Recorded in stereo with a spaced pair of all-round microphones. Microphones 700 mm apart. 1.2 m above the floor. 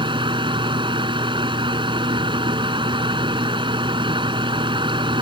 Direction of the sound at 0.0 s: 5° right (ahead or behind).